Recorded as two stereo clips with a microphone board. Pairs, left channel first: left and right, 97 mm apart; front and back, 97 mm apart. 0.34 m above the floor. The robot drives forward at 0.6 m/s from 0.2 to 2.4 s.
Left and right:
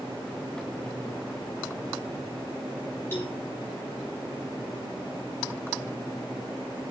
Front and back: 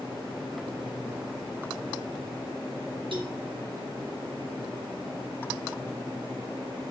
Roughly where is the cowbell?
Behind left.